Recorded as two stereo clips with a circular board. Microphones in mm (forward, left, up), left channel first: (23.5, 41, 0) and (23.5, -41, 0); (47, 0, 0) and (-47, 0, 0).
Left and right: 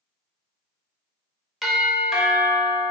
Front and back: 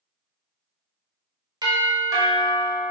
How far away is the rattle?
I don't hear a rattle.